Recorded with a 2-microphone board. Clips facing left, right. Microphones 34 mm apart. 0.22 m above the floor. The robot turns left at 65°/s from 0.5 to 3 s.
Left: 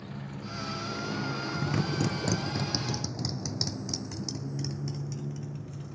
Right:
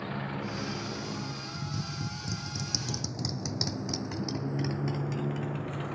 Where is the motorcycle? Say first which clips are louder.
Right 6 dB; 40° right (ahead or behind); by 6.0 s 50° right (ahead or behind).